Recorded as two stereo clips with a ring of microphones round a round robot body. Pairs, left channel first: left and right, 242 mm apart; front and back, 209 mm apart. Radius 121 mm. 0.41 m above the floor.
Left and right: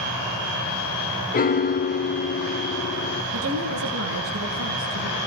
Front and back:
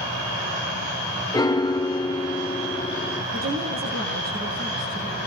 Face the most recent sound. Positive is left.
turn(degrees=-125)